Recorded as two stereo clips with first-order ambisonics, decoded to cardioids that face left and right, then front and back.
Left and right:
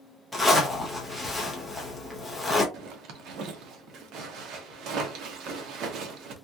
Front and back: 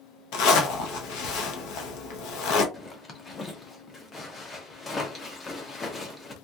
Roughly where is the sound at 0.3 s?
Ahead.